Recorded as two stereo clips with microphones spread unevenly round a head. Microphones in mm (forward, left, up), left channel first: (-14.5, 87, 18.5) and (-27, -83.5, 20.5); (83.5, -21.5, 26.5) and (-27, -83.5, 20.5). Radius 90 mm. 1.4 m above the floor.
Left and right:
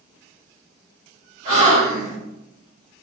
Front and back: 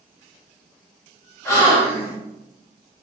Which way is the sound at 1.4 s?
40° right.